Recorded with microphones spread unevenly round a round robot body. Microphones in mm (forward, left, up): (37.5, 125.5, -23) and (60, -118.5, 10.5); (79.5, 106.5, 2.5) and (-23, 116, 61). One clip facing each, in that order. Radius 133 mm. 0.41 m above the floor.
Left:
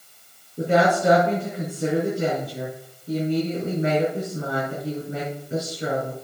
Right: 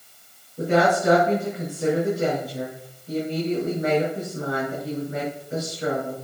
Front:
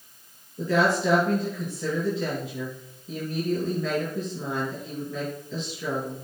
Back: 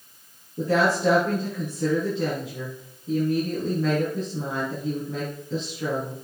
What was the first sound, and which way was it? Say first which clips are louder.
A woman speaking: even, back 1 dB; 165° left.